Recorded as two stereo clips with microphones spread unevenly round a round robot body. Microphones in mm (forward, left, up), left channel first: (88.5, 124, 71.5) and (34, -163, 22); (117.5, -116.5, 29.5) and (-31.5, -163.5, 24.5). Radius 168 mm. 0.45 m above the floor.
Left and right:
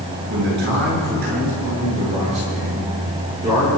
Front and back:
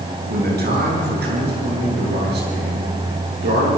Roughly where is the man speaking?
Behind right.